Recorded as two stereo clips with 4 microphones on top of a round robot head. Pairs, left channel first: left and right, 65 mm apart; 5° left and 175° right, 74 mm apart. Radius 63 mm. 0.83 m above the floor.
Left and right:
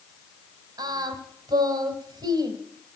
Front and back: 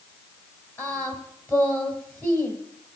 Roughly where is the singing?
Right.